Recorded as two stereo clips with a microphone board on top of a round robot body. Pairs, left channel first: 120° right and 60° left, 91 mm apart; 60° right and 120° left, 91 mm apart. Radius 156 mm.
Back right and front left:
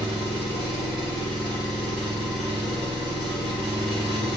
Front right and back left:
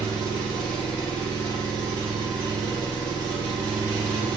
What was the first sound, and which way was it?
An engine running, 70° left.